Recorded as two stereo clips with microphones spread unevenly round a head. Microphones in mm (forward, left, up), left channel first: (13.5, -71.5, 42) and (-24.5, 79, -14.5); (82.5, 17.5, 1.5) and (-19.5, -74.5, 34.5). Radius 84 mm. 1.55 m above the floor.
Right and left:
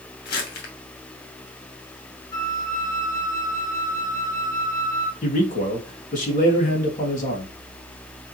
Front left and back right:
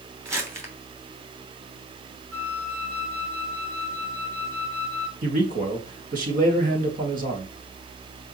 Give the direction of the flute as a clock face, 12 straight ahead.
4 o'clock.